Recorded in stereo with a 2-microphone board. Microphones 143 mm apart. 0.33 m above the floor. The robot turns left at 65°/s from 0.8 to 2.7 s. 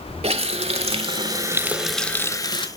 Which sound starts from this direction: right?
A running tap, at 0.2 s.